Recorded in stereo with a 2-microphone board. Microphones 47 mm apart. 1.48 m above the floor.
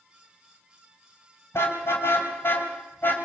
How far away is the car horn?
About 5 m.